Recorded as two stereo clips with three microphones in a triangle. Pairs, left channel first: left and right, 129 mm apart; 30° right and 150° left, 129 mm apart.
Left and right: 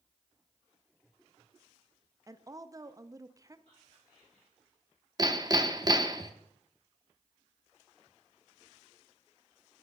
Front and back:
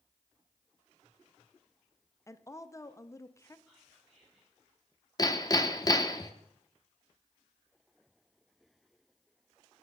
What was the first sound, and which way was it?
A woman speaking, 65° right.